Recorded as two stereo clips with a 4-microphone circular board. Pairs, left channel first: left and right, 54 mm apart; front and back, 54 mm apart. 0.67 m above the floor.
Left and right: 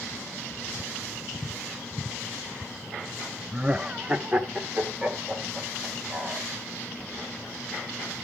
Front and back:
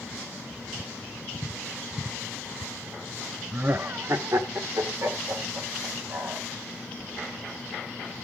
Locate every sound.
3.5 s laughter: 145° right, 0.5 m; by 6.5 s 155° right, 4 m